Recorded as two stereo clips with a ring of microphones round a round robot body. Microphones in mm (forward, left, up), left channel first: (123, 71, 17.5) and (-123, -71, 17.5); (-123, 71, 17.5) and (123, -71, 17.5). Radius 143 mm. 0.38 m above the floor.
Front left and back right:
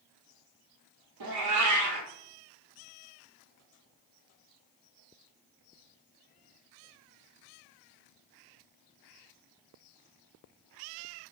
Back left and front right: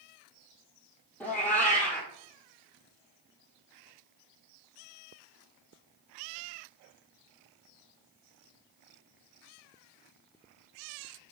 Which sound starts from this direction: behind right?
A cat meowing, at 1.2 s.